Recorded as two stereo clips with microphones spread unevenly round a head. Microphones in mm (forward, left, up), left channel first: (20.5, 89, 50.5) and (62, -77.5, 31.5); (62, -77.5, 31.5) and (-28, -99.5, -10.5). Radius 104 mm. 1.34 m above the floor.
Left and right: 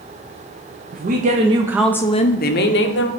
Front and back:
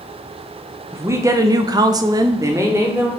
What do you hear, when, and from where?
0.9 s a woman speaking: 110° right, 0.9 m; by 3.1 s 120° left, 1.0 m